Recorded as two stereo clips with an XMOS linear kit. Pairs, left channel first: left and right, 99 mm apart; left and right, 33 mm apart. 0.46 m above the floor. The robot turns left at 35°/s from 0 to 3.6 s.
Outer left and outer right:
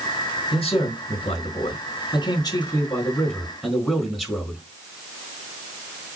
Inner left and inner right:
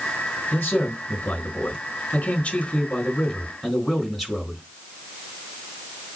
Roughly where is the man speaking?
Left.